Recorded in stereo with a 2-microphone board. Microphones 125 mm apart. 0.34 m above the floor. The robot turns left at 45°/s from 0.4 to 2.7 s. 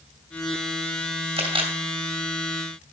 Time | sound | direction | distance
1.4 | a camera shutter | 50° right (ahead or behind) | 2 m